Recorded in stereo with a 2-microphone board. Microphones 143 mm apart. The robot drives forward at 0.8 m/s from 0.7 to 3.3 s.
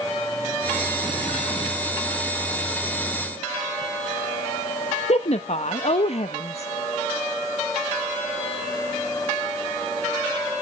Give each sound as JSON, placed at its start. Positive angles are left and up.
{"t": 5.1, "sound": "a woman speaking", "side_deg": 50, "distance_m": 0.6}